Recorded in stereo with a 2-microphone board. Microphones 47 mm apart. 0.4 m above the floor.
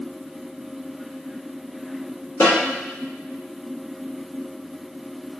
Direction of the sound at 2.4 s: 70° left (ahead or behind).